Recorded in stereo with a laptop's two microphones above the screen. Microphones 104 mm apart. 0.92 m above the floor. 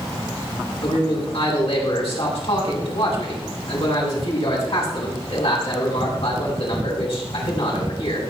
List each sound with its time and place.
0.8 s a man speaking: 65° left (ahead or behind), 8.5 m